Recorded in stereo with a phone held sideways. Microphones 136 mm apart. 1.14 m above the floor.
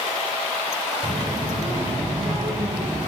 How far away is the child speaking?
About 3 m.